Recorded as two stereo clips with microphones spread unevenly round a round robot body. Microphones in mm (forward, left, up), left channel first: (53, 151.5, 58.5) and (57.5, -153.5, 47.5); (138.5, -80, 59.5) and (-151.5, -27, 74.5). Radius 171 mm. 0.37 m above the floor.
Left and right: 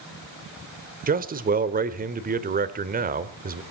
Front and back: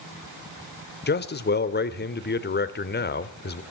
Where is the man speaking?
45° right, 1.4 m.